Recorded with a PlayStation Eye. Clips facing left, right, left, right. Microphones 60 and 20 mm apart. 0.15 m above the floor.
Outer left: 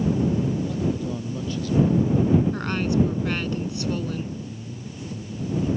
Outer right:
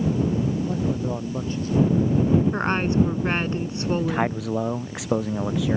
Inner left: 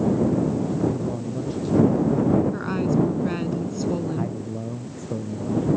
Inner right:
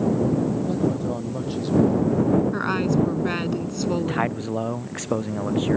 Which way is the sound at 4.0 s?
80° right.